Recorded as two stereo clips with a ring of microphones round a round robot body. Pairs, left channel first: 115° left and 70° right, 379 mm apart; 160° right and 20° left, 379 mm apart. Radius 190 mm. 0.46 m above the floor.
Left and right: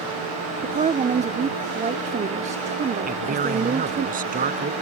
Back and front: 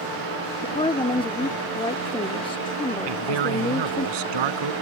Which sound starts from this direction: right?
A woman speaking, at 0.6 s.